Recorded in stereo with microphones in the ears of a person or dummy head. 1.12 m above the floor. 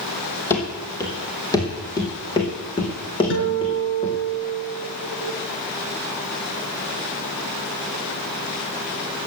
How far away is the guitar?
About 6.5 m.